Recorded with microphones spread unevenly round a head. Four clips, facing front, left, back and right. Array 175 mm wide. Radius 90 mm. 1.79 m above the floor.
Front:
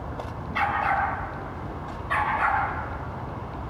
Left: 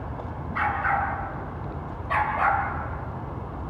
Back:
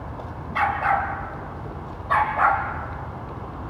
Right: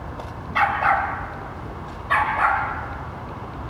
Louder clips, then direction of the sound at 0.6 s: Right 5 dB, back 2 dB; 125° right.